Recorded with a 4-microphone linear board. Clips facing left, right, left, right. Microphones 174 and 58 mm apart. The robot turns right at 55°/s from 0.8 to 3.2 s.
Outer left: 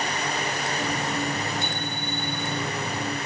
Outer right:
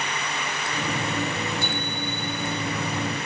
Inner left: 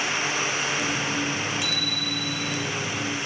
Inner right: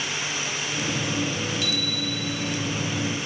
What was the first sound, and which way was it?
A bicycle bell, 160° left.